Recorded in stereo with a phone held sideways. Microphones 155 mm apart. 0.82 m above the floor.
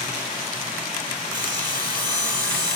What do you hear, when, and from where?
1.3 s sawing: 30° right (ahead or behind), 7 m